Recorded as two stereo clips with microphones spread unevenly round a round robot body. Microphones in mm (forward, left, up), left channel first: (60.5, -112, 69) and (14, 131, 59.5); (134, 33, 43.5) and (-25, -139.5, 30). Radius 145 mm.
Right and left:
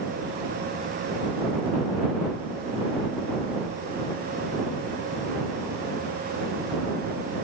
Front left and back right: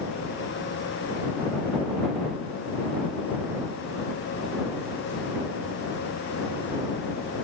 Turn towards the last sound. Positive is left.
No sound to turn to.